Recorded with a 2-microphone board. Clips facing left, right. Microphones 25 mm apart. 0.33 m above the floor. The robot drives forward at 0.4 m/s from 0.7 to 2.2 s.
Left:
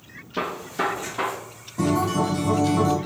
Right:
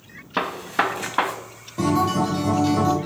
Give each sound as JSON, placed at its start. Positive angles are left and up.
{"t": 0.4, "sound": "a gunshot", "side_deg": -65, "distance_m": 0.5}
{"t": 1.8, "sound": "a guitar", "side_deg": -40, "distance_m": 0.8}